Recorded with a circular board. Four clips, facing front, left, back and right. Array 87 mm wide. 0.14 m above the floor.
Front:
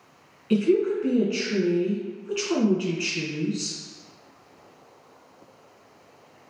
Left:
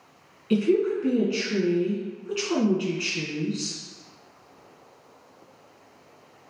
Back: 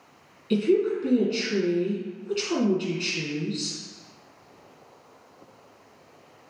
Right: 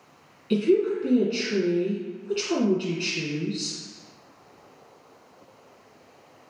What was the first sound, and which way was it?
A woman speaking, 30° left.